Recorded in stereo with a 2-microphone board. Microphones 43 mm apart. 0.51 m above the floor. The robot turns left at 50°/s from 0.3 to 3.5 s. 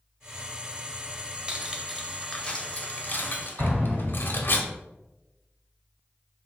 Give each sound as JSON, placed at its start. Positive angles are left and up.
{"t": 1.5, "sound": "cutlery clinking", "side_deg": -20, "distance_m": 0.7}
{"t": 3.6, "sound": "an explosion", "side_deg": -30, "distance_m": 2.0}